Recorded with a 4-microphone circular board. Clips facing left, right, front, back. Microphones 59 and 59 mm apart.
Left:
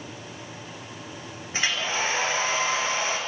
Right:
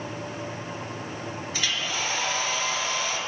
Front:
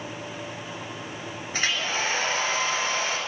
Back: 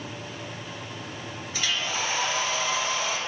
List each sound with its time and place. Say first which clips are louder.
1.5 s a hair dryer: left 4 dB, front 2 dB; 35° left, 1.8 m